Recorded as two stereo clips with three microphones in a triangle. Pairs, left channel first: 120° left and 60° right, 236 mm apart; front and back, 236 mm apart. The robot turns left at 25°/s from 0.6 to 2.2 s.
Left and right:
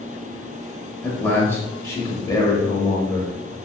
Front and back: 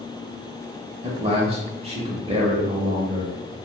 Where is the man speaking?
160° right, 0.9 m; by 3.3 s 170° left, 0.9 m.